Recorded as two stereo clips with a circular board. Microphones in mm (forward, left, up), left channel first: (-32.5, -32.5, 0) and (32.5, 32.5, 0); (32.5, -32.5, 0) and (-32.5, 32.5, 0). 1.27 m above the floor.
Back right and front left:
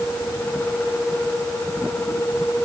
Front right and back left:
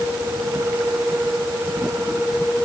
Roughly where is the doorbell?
I don't hear a doorbell.